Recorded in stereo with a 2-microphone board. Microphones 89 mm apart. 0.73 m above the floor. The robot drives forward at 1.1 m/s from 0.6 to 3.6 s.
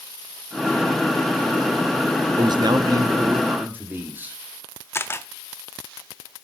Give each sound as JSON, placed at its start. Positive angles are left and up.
{"t": 2.4, "sound": "a man speaking", "side_deg": -45, "distance_m": 0.7}
{"t": 4.9, "sound": "a camera shutter", "side_deg": 25, "distance_m": 0.5}